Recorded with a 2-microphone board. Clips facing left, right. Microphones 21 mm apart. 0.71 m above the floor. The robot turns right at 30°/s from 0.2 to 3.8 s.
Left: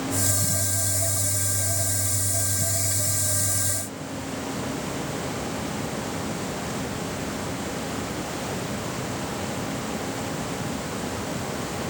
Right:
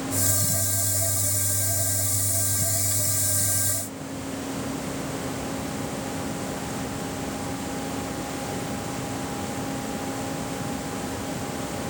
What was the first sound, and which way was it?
Only background noise.